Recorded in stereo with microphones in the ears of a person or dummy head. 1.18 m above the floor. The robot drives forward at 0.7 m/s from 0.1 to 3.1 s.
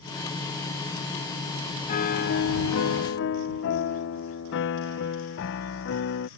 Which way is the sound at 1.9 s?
40° left (ahead or behind).